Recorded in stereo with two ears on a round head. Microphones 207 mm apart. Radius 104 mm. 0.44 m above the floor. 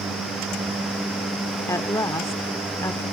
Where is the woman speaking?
15° left (ahead or behind).